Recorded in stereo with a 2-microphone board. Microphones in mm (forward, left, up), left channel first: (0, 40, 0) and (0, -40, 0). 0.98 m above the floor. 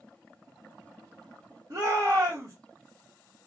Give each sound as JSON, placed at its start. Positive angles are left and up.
{"t": 1.7, "sound": "a shout", "side_deg": -50, "distance_m": 1.1}